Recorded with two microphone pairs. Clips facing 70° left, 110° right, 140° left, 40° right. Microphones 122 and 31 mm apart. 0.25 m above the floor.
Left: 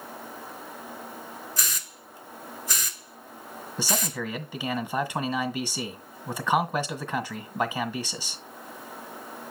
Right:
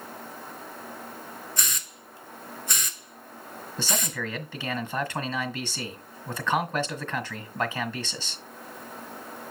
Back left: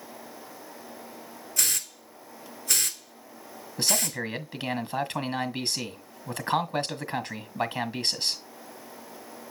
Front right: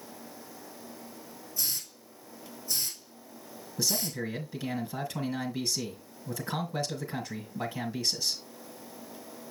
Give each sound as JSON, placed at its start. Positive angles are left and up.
{"t": 1.6, "sound": "a hiss", "azimuth_deg": 155, "distance_m": 1.1}
{"t": 3.8, "sound": "a man speaking", "azimuth_deg": 140, "distance_m": 1.6}